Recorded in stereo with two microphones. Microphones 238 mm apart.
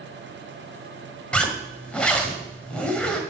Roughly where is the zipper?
Centre.